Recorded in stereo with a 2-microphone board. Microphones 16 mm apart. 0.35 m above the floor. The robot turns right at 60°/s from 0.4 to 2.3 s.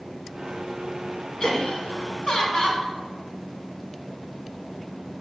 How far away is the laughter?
About 4 m.